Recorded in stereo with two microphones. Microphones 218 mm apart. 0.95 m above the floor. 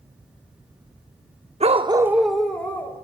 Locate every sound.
1.6 s a dog barking: 30° right (ahead or behind), 0.6 m; by 3.0 s 10° left (ahead or behind), 1.7 m